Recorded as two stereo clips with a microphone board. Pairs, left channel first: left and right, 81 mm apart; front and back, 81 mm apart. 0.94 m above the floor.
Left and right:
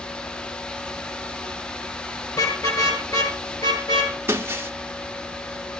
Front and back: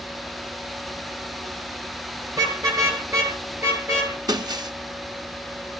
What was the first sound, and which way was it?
A car horn, 135° left.